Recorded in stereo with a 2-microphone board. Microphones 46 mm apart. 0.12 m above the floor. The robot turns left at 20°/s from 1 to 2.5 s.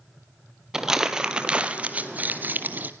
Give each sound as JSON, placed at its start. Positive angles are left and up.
{"t": 0.7, "sound": "crumpling", "side_deg": -10, "distance_m": 1.4}